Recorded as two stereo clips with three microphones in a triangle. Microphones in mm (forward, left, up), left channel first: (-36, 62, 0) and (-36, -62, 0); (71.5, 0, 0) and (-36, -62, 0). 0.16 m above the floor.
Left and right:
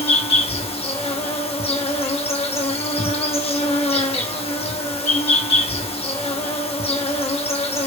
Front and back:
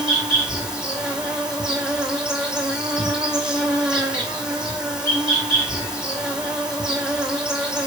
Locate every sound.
0.0 s an insect: 125° left, 0.9 m